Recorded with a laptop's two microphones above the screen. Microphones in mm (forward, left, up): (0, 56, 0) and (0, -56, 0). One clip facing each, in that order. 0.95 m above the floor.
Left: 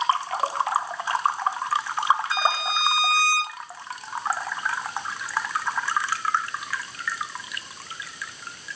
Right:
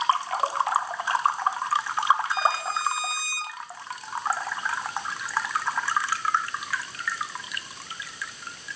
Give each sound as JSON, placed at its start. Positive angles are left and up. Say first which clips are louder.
{"t": 2.3, "sound": "a violin", "louder": "left 1 dB", "side_deg": 85, "distance_m": 0.7}